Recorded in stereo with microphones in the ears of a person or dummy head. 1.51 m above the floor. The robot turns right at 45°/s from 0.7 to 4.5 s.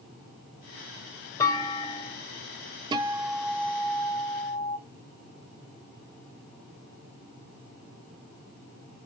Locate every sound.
1.4 s a clunk: 20° left, 1.6 m; by 2.2 s 55° left, 1.6 m
2.9 s a guitar: 30° right, 0.8 m; by 4.8 s 45° left, 0.8 m